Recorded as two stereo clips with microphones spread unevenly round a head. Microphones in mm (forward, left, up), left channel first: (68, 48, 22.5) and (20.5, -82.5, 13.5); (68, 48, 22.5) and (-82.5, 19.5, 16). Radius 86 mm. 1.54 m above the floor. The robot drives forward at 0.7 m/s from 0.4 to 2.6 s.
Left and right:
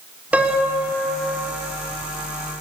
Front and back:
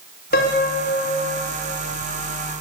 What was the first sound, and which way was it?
A piano, 30° right.